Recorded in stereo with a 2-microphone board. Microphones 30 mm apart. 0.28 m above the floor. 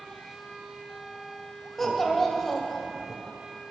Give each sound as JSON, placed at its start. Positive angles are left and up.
{"t": 1.8, "sound": "a child speaking", "side_deg": 10, "distance_m": 0.6}